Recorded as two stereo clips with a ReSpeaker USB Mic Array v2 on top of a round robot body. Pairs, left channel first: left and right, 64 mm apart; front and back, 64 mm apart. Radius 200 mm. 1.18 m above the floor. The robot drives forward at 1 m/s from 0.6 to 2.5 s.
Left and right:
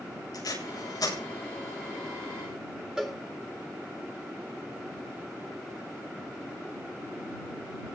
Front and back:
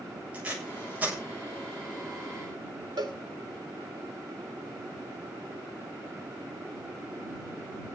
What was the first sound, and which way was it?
Tape being pulled, 110° left.